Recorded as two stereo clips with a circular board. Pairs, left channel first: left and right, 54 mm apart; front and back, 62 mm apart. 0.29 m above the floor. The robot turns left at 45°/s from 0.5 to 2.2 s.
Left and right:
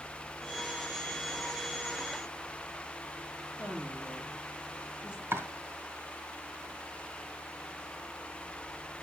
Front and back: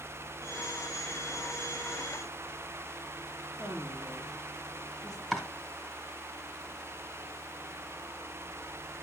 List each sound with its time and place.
3.5 s a woman speaking: 15° right, 6.5 m
5.3 s chopping: 80° right, 2 m